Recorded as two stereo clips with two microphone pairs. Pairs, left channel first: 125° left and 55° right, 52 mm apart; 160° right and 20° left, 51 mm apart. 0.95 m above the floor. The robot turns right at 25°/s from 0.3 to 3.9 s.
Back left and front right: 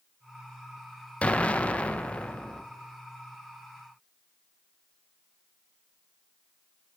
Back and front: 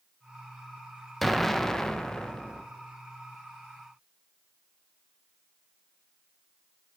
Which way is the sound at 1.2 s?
120° left.